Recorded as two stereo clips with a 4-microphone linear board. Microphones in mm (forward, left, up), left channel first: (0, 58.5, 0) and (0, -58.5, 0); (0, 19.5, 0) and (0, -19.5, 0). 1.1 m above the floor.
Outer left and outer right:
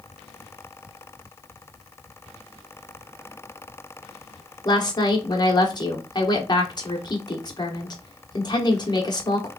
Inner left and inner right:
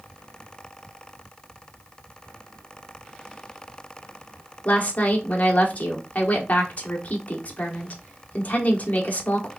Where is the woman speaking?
40° left (ahead or behind), 1.1 m.